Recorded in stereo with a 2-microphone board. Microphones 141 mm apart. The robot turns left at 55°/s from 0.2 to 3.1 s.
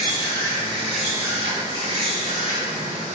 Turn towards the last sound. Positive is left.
turn(degrees=-120)